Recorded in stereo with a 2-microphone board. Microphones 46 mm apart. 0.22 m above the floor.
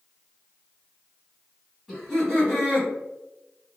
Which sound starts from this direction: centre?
Laughter, at 1.9 s.